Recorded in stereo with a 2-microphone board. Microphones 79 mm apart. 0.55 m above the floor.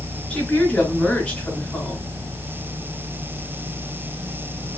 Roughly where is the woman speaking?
Centre.